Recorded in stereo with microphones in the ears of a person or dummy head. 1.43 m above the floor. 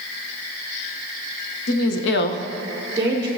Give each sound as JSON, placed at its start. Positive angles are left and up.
{"t": 1.7, "sound": "a woman speaking", "side_deg": 75, "distance_m": 1.0}